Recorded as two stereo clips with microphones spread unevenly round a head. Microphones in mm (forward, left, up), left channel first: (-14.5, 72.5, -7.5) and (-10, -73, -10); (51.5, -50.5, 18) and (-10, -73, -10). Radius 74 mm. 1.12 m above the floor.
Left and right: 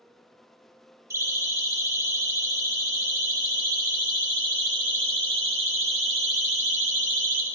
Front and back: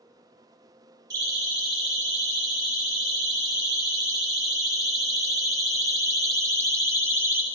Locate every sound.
1.1 s a siren: 160° right, 7 m; by 7.4 s 115° right, 2.5 m